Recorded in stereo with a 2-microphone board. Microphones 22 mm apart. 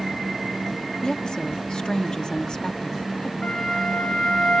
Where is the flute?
45° left (ahead or behind), 8 m.